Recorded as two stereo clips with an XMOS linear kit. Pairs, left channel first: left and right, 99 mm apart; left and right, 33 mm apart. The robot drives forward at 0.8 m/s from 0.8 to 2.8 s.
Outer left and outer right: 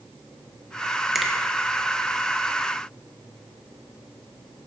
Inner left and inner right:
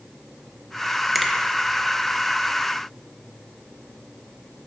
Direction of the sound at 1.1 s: Centre (ahead or behind).